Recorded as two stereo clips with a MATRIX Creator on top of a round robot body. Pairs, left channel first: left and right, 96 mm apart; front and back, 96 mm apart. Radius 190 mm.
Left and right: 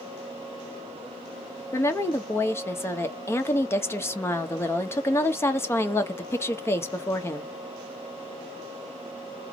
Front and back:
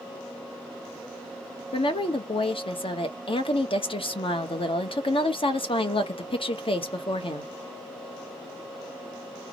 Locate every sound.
1.7 s a woman speaking: 25° left, 1.0 m